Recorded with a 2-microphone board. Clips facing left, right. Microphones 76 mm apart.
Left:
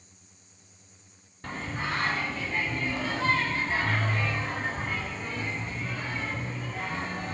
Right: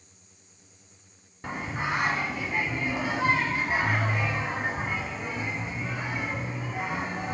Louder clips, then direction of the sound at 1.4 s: Right 2 dB; 15° right (ahead or behind).